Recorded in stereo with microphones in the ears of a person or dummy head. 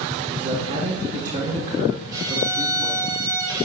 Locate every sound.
0.3 s a man speaking: 45° right (ahead or behind), 1.8 m
2.1 s a violin: 15° right (ahead or behind), 1.6 m